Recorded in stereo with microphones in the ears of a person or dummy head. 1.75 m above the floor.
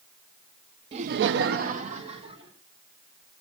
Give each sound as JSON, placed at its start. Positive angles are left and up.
{"t": 0.9, "sound": "laughter", "side_deg": -35, "distance_m": 0.6}